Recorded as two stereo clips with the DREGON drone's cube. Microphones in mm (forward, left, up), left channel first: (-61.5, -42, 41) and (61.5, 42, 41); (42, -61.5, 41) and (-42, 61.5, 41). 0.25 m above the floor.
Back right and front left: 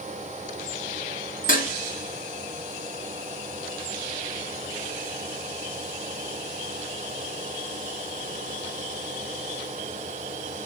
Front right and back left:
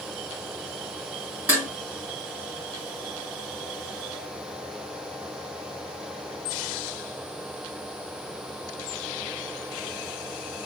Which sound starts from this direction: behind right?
Dishes clattering, at 1.5 s.